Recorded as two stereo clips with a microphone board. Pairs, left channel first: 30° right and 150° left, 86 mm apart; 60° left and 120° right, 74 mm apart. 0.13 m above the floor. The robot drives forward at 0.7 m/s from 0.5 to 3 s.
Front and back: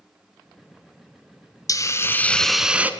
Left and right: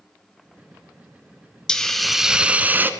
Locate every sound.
1.7 s a hiss: 15° right, 0.8 m; by 2.9 s 155° right, 0.7 m